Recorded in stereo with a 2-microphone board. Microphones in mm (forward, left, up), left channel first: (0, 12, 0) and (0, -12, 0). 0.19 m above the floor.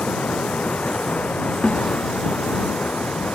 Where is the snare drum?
55° left (ahead or behind).